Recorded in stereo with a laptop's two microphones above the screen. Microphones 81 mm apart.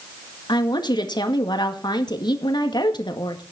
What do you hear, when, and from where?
0.5 s a woman speaking: 60° left (ahead or behind), 1.9 m